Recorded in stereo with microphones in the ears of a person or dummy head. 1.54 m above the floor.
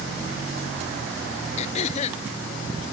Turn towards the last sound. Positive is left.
turn(degrees=45)  # may be behind; listen again after turning